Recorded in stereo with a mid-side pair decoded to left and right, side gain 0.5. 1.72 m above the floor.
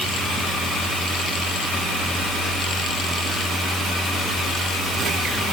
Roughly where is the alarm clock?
I don't hear an alarm clock.